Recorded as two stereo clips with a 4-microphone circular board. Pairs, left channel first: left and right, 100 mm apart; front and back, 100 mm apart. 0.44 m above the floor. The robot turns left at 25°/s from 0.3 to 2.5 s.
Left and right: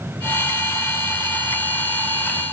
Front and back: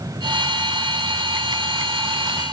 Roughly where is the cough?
No cough in this recording.